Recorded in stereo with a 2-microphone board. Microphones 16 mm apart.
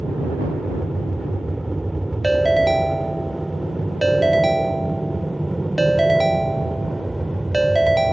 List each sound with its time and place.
0.0 s an aircraft: 10° left (ahead or behind); by 8.1 s 25° right (ahead or behind)
2.2 s a ringtone: 5° left (ahead or behind)